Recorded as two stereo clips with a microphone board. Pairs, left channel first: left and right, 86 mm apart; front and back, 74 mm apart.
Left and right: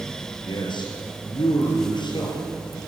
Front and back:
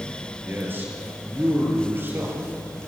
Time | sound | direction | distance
0.4 | a man speaking | 115° left | 5.5 m